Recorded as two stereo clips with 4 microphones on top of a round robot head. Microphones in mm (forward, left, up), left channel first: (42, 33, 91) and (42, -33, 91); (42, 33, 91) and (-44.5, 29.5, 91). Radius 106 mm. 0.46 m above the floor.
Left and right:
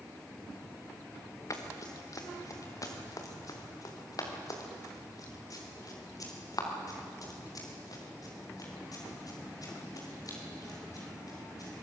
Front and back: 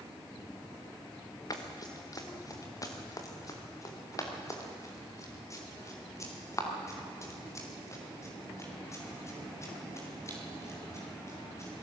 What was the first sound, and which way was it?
Running footsteps, 50° left.